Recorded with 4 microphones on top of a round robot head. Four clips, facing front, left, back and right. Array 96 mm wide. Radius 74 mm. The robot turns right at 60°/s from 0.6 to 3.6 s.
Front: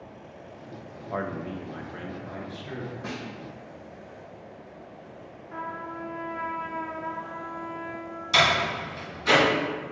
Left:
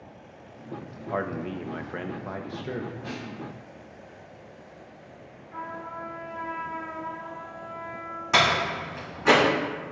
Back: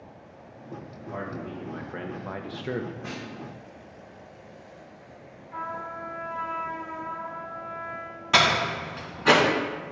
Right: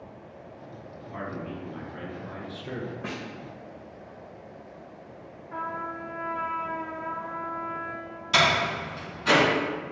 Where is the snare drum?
65° right, 1.9 m; by 3.2 s 55° right, 1.9 m.